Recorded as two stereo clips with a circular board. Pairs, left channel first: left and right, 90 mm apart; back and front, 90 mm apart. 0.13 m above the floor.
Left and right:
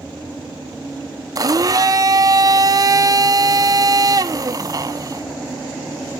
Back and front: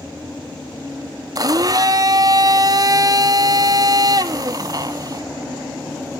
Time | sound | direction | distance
1.4 | a blender | 45° right | 0.5 m